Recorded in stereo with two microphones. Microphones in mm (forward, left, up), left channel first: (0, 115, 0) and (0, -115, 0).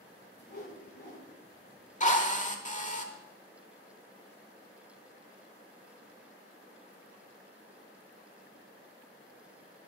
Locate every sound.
0.4 s a whoosh: 45° left (ahead or behind), 5 m
2.0 s a drill: 35° left (ahead or behind), 1.5 m